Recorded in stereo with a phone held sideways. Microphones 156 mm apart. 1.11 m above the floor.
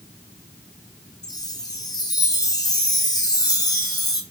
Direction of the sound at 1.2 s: 25° left (ahead or behind).